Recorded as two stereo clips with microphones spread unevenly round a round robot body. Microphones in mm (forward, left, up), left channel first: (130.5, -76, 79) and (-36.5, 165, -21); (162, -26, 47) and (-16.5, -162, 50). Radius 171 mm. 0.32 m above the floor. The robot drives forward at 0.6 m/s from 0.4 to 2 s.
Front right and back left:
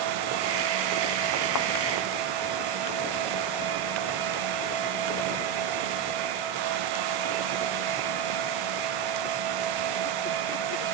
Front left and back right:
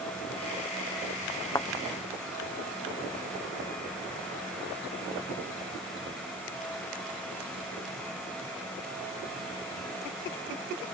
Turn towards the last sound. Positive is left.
turn(degrees=-40)